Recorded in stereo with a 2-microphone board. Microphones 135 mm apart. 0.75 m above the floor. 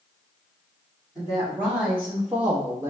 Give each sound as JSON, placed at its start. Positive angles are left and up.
{"t": 1.1, "sound": "a woman speaking", "side_deg": -5, "distance_m": 1.8}